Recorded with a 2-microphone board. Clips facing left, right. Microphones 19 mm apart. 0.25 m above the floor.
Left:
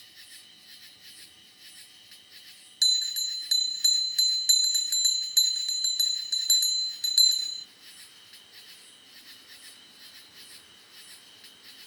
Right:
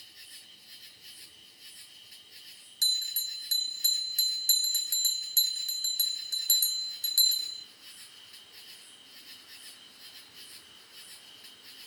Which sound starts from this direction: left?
An insect, at 0.0 s.